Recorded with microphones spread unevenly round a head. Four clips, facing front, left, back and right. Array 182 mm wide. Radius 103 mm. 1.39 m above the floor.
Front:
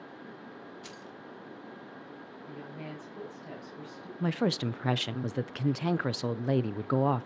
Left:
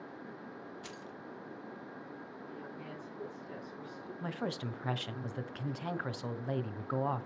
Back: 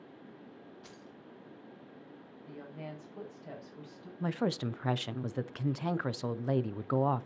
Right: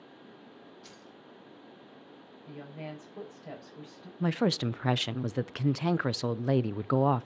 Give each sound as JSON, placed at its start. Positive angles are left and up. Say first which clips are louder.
{"t": 0.8, "sound": "keys jangling", "louder": "left 5 dB, front 6 dB", "azimuth_deg": 60, "distance_m": 1.4}
{"t": 2.5, "sound": "a woman speaking", "louder": "right 6 dB, front 1 dB", "azimuth_deg": -105, "distance_m": 6.5}
{"t": 4.2, "sound": "a woman speaking", "louder": "right 10 dB, front 3 dB", "azimuth_deg": -60, "distance_m": 0.5}